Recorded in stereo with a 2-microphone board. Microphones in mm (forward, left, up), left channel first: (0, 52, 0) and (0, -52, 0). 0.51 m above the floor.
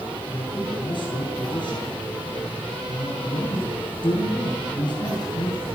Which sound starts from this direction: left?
A man speaking, at 0.3 s.